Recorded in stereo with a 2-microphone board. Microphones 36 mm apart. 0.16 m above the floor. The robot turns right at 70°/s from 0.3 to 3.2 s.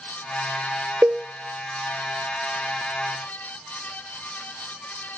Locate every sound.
1.0 s a cowbell: 75° right (ahead or behind), 0.6 m; by 1.2 s 65° right (ahead or behind), 0.6 m